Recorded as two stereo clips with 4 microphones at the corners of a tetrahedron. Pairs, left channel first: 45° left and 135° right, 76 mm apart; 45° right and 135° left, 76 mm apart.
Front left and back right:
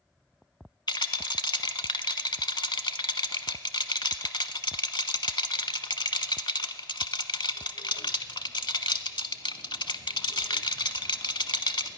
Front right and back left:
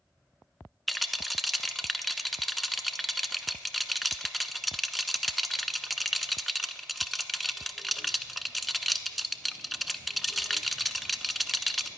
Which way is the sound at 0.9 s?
45° left.